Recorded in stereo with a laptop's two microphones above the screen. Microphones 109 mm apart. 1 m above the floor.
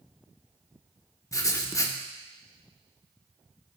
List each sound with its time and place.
1.3 s writing: 30° left (ahead or behind), 0.6 m